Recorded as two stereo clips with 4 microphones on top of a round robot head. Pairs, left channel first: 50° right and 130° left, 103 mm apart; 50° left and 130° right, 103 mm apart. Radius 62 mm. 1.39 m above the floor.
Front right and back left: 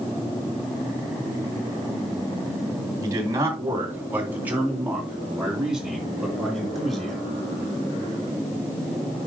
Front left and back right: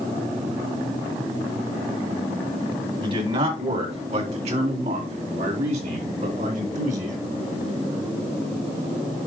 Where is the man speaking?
170° right, 3 m; by 7.2 s 140° right, 4.5 m.